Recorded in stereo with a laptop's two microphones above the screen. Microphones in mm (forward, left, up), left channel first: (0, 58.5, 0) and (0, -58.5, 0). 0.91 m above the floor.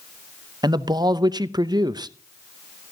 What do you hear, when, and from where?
0.6 s a man speaking: 35° right (ahead or behind), 0.7 m